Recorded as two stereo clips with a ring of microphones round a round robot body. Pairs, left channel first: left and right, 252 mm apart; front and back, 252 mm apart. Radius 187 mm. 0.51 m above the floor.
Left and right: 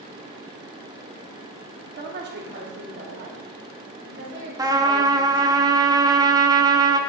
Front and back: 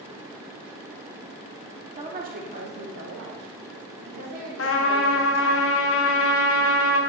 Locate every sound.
2.0 s a woman speaking: 120° right, 0.9 m; by 5.6 s 150° right, 3 m
4.6 s a trumpet: 15° right, 0.9 m